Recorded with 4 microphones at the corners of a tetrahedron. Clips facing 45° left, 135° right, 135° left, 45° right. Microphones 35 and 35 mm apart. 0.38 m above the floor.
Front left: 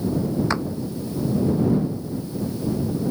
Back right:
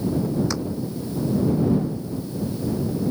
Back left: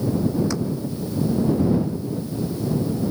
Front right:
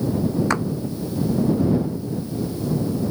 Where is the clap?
10° right.